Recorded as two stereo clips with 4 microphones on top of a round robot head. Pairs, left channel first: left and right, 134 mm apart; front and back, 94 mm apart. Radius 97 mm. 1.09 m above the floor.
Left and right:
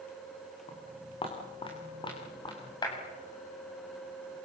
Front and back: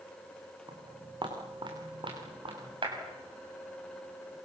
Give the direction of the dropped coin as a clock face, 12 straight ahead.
I don't hear a dropped coin.